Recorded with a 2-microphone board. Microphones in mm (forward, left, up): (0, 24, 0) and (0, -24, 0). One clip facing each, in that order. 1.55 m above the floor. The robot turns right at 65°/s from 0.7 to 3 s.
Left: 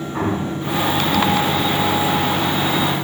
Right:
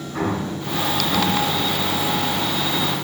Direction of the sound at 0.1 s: 10° left (ahead or behind).